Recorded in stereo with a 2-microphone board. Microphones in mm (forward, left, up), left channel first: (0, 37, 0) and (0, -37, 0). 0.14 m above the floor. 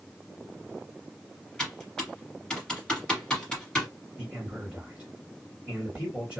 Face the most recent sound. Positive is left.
turn(degrees=-10)  # may be behind; listen again after turning